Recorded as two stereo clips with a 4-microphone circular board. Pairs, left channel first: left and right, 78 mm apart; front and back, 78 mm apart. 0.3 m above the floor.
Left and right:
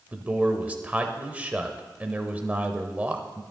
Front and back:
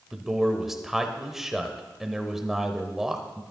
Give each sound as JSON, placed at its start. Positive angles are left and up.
{"t": 0.1, "sound": "a man speaking", "azimuth_deg": -105, "distance_m": 0.9}